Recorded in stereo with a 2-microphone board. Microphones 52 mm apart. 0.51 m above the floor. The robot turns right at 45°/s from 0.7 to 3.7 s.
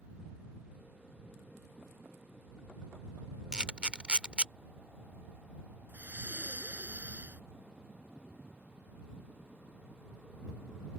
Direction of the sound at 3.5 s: 15° right (ahead or behind).